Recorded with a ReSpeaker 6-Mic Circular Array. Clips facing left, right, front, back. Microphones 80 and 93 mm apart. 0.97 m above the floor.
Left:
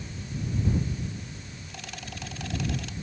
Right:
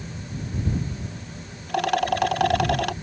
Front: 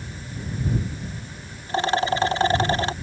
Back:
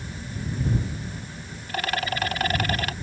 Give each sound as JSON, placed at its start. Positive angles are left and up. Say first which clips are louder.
{"t": 1.7, "sound": "a rattle", "louder": "right 22 dB, front 6 dB", "azimuth_deg": -65}